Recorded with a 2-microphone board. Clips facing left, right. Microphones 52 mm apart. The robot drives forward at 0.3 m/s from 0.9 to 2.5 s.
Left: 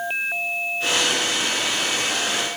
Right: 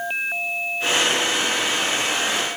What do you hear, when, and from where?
Only background noise.